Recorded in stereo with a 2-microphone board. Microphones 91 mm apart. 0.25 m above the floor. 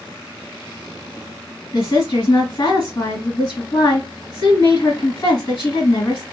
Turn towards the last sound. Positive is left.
turn(degrees=50)  # may be behind; listen again after turning